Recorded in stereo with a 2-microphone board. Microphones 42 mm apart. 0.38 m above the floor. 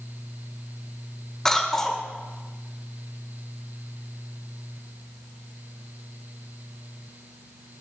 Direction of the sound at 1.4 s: 10° left (ahead or behind).